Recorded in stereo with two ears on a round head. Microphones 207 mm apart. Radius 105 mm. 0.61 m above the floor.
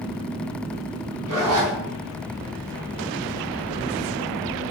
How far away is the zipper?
About 4 m.